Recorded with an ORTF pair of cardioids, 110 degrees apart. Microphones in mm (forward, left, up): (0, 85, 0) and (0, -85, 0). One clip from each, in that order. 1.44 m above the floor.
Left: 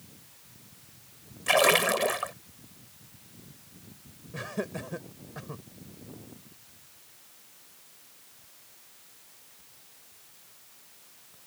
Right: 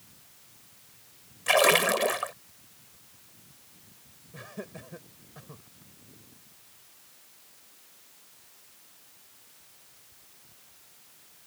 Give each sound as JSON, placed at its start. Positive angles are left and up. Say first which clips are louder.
{"t": 1.5, "sound": "a splash", "louder": "right 1 dB", "azimuth_deg": -10}
{"t": 4.3, "sound": "laughter", "louder": "left 8 dB", "azimuth_deg": 40}